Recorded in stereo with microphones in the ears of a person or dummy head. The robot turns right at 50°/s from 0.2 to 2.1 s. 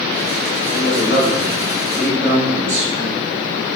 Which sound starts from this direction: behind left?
A man speaking, at 0.7 s.